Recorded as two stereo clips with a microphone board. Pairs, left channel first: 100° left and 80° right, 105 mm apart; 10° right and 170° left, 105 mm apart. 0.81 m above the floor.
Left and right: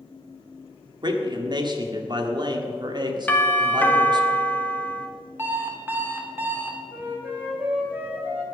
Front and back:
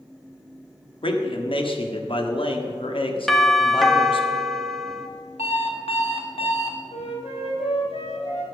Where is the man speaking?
40° right, 1.5 m.